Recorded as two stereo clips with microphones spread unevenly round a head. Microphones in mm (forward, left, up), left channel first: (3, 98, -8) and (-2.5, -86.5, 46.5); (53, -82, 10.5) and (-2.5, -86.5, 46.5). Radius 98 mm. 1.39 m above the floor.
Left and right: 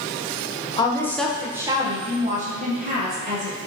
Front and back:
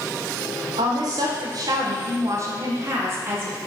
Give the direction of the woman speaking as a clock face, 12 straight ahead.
7 o'clock.